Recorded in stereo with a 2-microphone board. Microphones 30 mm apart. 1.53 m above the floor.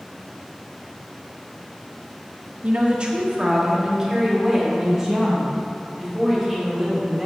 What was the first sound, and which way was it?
A woman speaking, 50° right (ahead or behind).